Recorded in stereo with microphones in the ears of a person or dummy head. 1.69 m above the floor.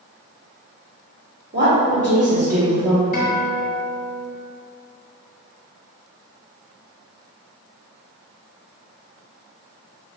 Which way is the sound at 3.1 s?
40° left (ahead or behind).